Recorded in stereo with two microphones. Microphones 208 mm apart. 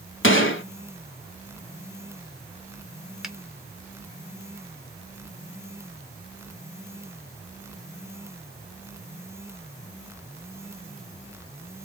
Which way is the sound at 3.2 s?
Centre (ahead or behind).